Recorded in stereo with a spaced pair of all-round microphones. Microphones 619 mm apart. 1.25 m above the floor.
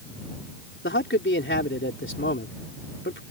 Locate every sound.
0.8 s a man speaking: 20° left (ahead or behind)